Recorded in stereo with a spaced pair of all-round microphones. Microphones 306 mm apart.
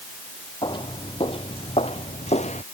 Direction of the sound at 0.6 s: 15° left (ahead or behind).